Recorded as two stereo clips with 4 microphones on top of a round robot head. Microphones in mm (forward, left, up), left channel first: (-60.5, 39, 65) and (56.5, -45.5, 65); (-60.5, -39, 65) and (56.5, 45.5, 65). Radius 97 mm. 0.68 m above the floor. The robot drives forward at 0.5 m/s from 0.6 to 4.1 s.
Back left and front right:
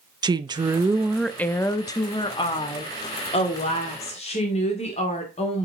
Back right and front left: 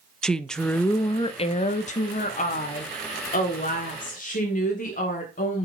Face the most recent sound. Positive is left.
turn(degrees=-170)